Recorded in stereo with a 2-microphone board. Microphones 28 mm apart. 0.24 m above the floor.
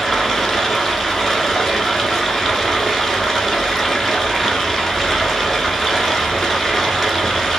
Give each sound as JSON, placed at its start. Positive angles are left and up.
{"t": 0.0, "sound": "running water", "side_deg": 10, "distance_m": 1.1}